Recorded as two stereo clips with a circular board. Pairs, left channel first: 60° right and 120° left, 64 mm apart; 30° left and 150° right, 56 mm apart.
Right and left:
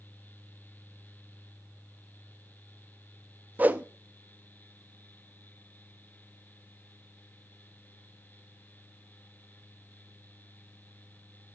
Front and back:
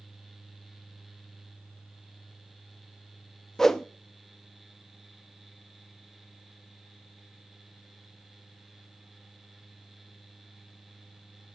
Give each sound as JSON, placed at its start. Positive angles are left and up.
{"t": 3.6, "sound": "a whoosh", "azimuth_deg": 105, "distance_m": 0.7}